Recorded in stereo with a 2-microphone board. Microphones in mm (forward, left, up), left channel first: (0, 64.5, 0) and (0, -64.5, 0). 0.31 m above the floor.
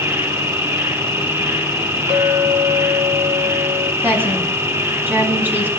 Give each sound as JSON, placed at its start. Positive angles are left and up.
{"t": 0.0, "sound": "an insect", "side_deg": -20, "distance_m": 2.0}
{"t": 2.1, "sound": "a clink", "side_deg": -60, "distance_m": 2.0}
{"t": 4.0, "sound": "a woman speaking", "side_deg": -15, "distance_m": 2.5}